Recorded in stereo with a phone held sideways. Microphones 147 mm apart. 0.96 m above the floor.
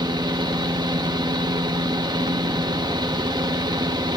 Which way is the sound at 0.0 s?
30° right (ahead or behind).